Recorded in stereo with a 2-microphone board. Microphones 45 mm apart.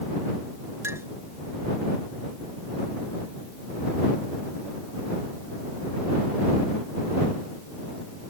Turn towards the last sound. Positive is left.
turn(degrees=-70)  # may be behind; listen again after turning